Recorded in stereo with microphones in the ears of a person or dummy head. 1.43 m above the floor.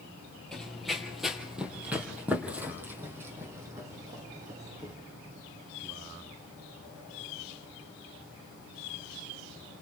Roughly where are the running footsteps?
Centre.